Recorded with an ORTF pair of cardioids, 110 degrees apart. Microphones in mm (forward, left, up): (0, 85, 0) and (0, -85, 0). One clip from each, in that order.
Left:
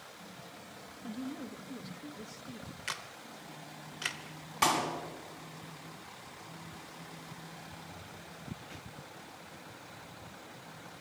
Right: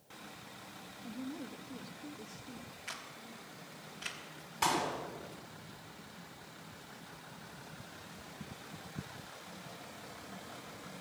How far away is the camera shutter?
About 2.5 m.